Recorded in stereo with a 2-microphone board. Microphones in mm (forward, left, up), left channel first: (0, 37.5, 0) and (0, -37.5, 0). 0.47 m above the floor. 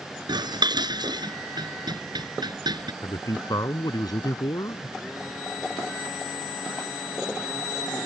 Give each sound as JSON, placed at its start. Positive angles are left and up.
{"t": 0.3, "sound": "dishes clattering", "side_deg": -75}
{"t": 3.0, "sound": "a man speaking", "side_deg": 60}